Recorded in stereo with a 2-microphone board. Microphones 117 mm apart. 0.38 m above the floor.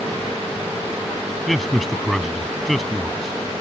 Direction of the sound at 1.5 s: Centre (ahead or behind).